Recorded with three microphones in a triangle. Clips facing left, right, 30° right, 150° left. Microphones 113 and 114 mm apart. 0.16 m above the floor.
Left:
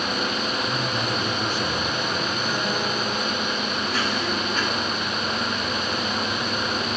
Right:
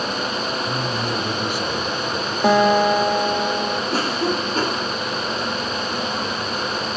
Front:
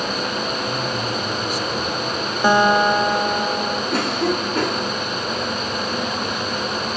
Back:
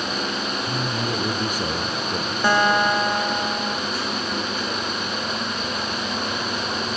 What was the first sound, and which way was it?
A man speaking, 170° right.